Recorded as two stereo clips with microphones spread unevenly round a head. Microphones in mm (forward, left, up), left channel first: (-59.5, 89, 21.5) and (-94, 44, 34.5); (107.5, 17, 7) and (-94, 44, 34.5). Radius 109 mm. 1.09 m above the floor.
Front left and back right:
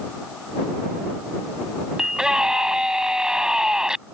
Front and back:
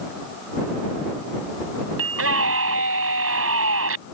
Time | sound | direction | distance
2.0 | a scream | 155° left | ?